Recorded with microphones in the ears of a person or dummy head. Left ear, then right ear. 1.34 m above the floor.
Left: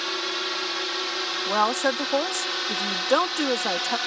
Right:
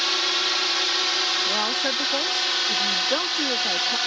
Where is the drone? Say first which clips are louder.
Right 5 dB; 20° right (ahead or behind); by 4.1 s 10° right (ahead or behind).